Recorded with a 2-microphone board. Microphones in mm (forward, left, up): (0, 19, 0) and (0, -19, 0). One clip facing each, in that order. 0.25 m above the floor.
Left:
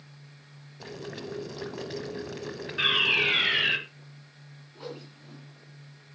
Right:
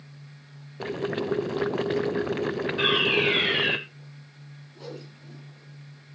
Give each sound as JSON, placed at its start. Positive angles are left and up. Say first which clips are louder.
{"t": 0.8, "sound": "boiling", "louder": "right 10 dB", "side_deg": -40, "distance_m": 0.6}
{"t": 2.8, "sound": "a fire alarm", "louder": "even", "side_deg": 10, "distance_m": 3.0}
{"t": 4.8, "sound": "a whoosh", "louder": "even", "side_deg": 20, "distance_m": 3.5}